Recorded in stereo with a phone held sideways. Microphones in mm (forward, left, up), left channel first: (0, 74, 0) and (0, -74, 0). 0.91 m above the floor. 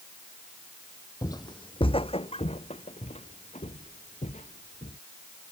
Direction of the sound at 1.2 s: 25° left (ahead or behind).